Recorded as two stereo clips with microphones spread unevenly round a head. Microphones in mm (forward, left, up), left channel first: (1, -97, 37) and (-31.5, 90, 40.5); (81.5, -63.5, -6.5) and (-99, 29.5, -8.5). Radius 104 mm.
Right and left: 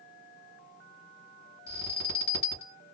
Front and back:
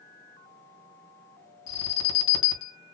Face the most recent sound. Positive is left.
turn(degrees=-40)